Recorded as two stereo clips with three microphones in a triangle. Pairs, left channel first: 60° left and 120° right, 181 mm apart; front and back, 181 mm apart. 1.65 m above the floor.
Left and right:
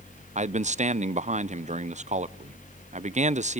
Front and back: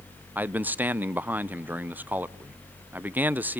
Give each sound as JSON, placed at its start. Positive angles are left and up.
{"t": 0.3, "sound": "a man speaking", "azimuth_deg": -105, "distance_m": 0.6}